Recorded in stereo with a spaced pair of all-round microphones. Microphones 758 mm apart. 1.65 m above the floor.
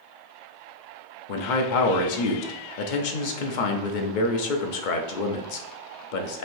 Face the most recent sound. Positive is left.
turn(degrees=80)